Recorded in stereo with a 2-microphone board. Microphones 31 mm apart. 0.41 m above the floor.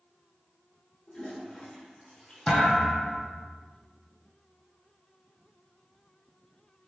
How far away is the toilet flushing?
About 1.4 m.